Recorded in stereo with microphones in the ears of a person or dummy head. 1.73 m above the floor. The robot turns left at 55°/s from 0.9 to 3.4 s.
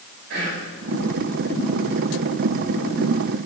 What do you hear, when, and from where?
0.3 s whispering: 65° right (ahead or behind), 1.2 m